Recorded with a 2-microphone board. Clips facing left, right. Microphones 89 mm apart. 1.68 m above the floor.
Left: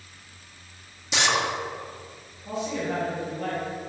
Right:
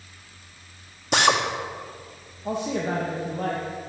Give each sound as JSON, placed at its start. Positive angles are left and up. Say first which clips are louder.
{"t": 1.1, "sound": "a drill", "louder": "right 4 dB", "side_deg": -55, "distance_m": 1.7}
{"t": 2.5, "sound": "a man speaking", "louder": "right 3 dB", "side_deg": -60, "distance_m": 2.5}